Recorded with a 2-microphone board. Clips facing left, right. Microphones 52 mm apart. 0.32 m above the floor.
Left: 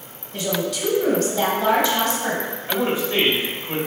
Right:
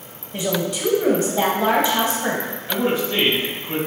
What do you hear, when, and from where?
0.3 s a woman speaking: 25° right (ahead or behind), 1.2 m
2.7 s a man speaking: 15° left (ahead or behind), 1.4 m